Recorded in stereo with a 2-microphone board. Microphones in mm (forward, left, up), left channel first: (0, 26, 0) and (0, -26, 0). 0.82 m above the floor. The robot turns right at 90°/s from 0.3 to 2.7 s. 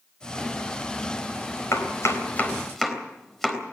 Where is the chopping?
80° left, 3.5 m; by 3.6 s 5° left (ahead or behind), 3.5 m.